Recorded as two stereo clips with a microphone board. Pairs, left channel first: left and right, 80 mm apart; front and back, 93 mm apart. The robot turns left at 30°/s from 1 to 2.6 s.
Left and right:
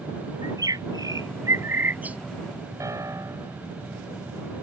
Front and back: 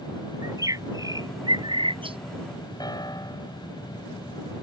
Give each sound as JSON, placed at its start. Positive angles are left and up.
{"t": 0.4, "sound": "a bird", "azimuth_deg": -130}
{"t": 2.8, "sound": "a piano", "azimuth_deg": -45}